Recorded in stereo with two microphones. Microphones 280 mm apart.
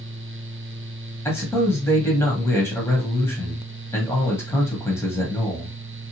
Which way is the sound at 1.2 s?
10° left (ahead or behind).